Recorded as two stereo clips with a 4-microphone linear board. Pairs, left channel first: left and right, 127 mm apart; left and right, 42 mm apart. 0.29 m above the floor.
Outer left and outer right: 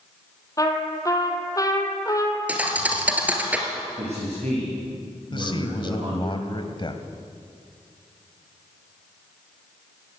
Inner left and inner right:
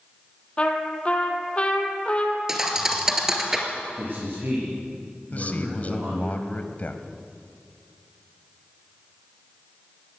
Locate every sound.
0.6 s a trumpet: 25° left (ahead or behind), 2.5 m
2.5 s a thud: 10° right (ahead or behind), 2.5 m
4.0 s a man speaking: 60° right (ahead or behind), 7.5 m
5.3 s a man speaking: 40° left (ahead or behind), 1.9 m